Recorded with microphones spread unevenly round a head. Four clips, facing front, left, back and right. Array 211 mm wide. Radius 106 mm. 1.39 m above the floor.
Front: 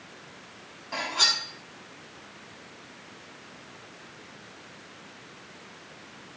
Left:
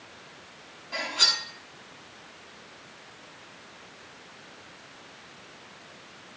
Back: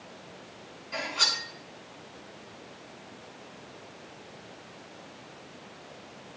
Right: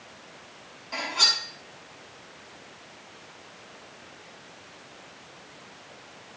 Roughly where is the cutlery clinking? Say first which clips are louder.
Right 1 dB, front 2 dB; ahead.